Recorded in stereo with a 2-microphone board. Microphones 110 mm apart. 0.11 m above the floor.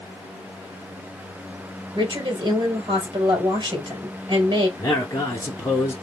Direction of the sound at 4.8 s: 25° left (ahead or behind).